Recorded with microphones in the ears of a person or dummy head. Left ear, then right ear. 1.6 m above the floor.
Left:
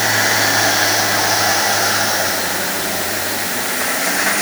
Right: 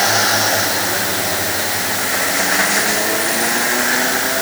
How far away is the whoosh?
I don't hear a whoosh.